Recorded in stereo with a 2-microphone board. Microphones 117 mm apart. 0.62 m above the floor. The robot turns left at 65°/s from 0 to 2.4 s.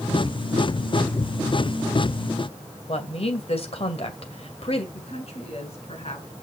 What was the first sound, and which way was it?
A woman speaking, 55° left (ahead or behind).